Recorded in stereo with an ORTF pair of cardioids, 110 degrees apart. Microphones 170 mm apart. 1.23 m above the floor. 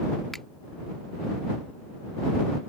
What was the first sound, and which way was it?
A finger snap, straight ahead.